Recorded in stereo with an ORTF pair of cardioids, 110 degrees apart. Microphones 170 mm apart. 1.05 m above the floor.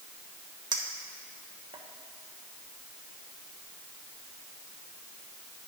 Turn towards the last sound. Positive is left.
turn(degrees=-25)